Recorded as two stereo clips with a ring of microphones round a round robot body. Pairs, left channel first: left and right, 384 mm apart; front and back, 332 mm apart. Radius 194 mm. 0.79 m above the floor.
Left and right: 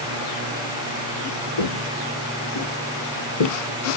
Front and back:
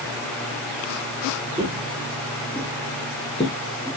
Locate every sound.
1.6 s footsteps: 105° left, 2 m; by 4.0 s 65° left, 2 m